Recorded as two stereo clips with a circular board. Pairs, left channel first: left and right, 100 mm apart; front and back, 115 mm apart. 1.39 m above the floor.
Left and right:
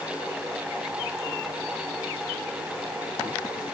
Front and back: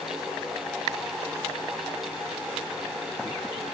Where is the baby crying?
No baby crying in this recording.